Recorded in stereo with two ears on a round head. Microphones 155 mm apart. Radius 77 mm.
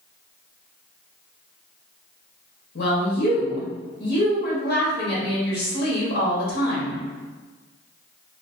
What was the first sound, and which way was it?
A woman speaking, 60° left (ahead or behind).